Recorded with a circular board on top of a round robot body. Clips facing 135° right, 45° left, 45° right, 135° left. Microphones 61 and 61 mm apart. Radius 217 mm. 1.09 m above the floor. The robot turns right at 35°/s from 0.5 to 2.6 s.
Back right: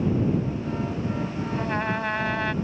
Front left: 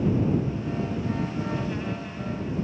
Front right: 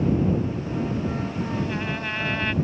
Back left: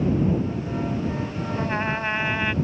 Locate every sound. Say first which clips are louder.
1.6 s a trumpet: back right 4 dB, back left 3 dB; straight behind; by 2.5 s 145° right